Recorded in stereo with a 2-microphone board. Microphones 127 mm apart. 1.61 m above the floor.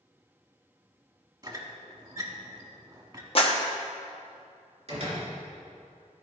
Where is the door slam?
45° right (ahead or behind), 3 m.